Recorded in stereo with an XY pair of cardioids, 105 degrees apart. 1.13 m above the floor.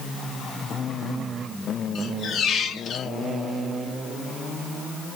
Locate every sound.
1.9 s a squeak: 60° left, 1.1 m